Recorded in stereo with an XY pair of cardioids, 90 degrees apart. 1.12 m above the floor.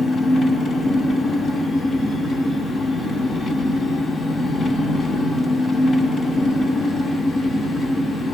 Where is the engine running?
65° left, 6 m.